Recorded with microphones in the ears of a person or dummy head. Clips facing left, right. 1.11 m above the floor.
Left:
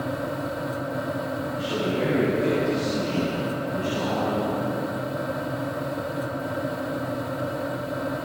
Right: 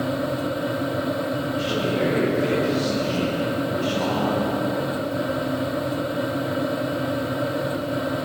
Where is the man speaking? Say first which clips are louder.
Right 1 dB; 65° right (ahead or behind), 7.5 m; by 4.6 s 50° right (ahead or behind), 10.5 m.